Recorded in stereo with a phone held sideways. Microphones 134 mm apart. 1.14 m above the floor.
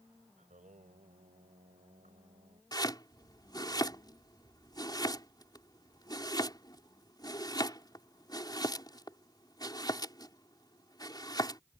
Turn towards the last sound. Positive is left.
turn(degrees=30)  # may be behind; listen again after turning